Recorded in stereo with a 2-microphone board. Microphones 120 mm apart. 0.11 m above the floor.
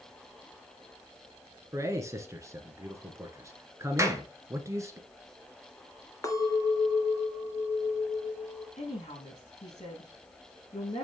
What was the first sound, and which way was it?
A man speaking, 25° right (ahead or behind).